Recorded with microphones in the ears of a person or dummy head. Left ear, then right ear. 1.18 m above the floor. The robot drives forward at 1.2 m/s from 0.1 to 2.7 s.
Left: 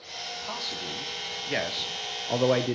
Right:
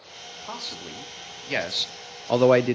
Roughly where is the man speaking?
Centre.